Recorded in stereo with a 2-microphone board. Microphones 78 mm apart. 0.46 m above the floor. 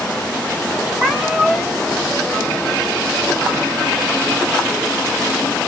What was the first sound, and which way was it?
A cat meowing, 5° right (ahead or behind).